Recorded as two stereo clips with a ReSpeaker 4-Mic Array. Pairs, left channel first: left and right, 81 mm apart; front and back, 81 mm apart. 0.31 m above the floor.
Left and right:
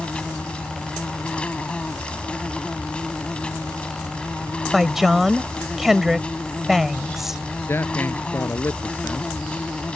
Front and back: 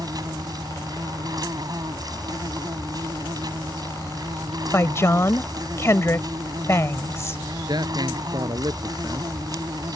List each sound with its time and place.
0.0 s an insect: 165° left
4.7 s a woman speaking: 5° right
7.7 s a man speaking: 150° left